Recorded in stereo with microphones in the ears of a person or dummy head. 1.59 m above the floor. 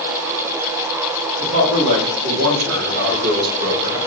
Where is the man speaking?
80° right, 1.6 m; by 4.0 s 35° right (ahead or behind), 0.9 m.